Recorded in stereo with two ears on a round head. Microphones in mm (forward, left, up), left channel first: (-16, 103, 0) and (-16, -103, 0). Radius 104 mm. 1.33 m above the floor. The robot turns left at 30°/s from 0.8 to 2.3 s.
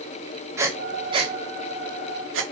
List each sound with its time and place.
0.6 s breathing: 10° right (ahead or behind), 1.9 m; by 2.4 s 55° right (ahead or behind), 1.9 m